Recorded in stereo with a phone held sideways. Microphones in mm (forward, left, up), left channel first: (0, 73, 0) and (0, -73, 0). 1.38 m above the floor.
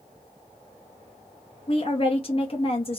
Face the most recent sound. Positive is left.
turn(degrees=40)  # may be behind; listen again after turning